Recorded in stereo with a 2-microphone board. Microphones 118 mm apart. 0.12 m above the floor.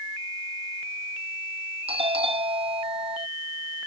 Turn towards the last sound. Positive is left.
turn(degrees=-55)  # may be behind; listen again after turning